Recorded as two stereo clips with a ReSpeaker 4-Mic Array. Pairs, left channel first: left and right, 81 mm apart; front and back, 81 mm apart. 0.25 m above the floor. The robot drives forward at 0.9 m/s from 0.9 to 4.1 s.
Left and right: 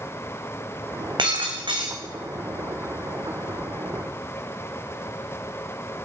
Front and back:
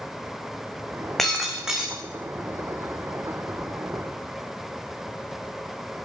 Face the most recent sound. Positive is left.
turn(degrees=-135)